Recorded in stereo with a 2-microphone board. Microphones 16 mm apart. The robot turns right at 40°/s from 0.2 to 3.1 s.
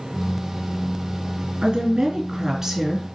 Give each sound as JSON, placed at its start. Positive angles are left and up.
{"t": 1.6, "sound": "a woman speaking", "azimuth_deg": -80, "distance_m": 2.5}